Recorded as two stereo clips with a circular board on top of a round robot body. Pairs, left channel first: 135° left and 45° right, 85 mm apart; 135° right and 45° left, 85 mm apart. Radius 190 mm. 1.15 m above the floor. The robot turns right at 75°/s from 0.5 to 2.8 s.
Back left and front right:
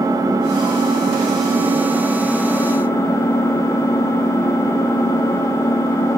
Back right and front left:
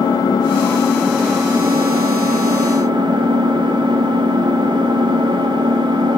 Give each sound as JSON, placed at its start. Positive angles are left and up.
{"t": 0.0, "sound": "an engine running", "azimuth_deg": -95, "distance_m": 1.7}